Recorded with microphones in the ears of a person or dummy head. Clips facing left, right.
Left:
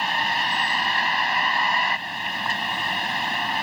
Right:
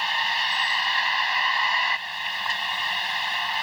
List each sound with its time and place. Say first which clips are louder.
0.0 s a vehicle: left 4 dB; 40° left (ahead or behind)